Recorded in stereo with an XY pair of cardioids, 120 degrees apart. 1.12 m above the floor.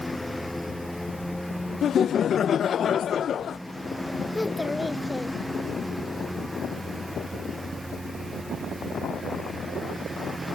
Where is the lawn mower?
10° left; by 10.6 s 5° right.